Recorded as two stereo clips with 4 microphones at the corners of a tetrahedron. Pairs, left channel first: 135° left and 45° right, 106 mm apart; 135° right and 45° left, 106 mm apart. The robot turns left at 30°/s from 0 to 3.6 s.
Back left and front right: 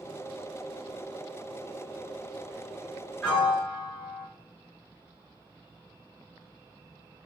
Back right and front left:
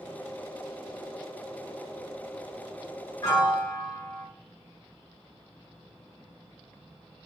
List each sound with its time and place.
3.2 s a piano: 150° right, 1.7 m; by 4.2 s 160° right, 1.7 m